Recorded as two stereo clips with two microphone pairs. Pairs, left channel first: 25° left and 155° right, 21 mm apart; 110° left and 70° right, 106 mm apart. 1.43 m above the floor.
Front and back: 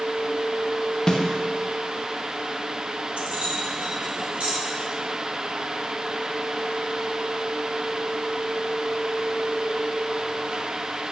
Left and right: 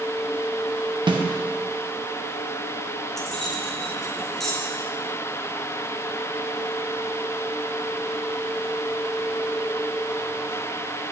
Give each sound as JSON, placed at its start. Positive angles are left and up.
{"t": 1.1, "sound": "a snare drum", "azimuth_deg": -30, "distance_m": 0.9}
{"t": 3.2, "sound": "keys jangling", "azimuth_deg": -165, "distance_m": 1.4}